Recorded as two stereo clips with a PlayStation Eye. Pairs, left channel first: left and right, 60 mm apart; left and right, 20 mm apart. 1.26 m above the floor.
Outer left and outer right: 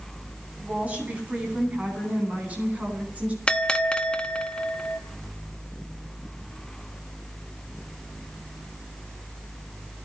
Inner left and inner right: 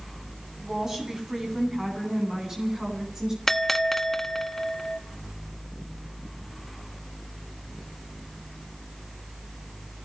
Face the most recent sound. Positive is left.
turn(degrees=15)  # may be behind; listen again after turning